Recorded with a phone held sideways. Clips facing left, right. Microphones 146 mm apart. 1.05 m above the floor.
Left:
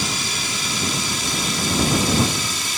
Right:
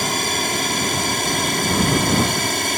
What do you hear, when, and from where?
0.0 s a drone: 55° right (ahead or behind); by 2.8 s 60° right (ahead or behind)